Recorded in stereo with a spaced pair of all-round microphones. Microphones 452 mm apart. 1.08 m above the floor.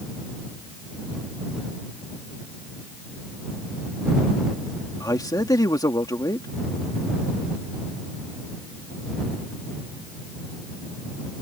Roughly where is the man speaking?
Centre.